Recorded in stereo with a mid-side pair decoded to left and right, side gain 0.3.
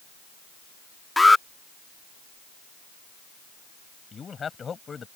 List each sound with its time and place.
1.2 s an alarm: 20° left
4.1 s a man speaking: 55° left